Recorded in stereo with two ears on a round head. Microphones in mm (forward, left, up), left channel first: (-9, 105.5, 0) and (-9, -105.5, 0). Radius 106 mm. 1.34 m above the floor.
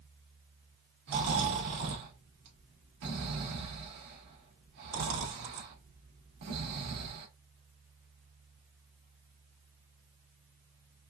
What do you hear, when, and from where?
1.1 s snoring: 85° right, 2 m